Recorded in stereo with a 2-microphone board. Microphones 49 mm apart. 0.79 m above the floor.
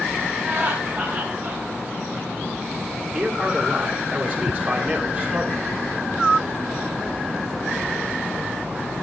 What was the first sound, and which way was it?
Laughter, 45° right (ahead or behind).